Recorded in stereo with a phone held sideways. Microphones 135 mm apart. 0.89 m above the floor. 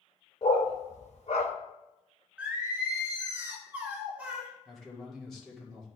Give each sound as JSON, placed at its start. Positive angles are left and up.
{"t": 0.4, "sound": "a dog barking", "side_deg": 55, "distance_m": 0.9}
{"t": 2.4, "sound": "singing", "side_deg": -10, "distance_m": 2.0}
{"t": 4.7, "sound": "a man speaking", "side_deg": 5, "distance_m": 1.9}